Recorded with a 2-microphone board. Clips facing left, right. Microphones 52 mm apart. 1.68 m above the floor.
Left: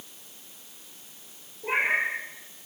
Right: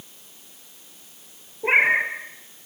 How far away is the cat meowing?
About 3.5 m.